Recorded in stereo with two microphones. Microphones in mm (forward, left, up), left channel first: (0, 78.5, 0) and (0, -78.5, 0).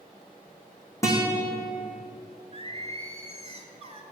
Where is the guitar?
20° left (ahead or behind), 2.5 m.